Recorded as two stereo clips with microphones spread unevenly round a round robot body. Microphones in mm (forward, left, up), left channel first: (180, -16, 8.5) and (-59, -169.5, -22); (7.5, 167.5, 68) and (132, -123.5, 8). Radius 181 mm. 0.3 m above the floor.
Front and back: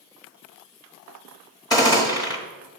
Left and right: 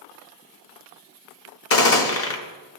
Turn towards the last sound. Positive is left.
turn(degrees=110)